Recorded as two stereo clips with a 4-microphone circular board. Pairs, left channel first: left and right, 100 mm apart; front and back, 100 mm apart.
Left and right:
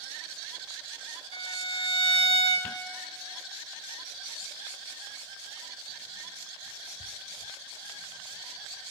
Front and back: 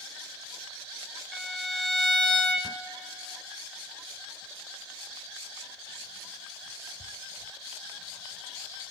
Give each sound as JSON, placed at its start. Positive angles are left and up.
{"t": 1.3, "sound": "a violin", "azimuth_deg": 85, "distance_m": 0.8}